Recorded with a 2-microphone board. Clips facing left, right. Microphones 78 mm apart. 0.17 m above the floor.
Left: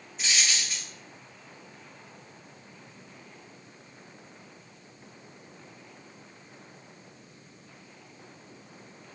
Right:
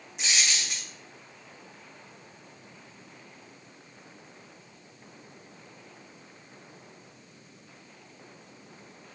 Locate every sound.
0.2 s a dropped coin: 80° right, 1.9 m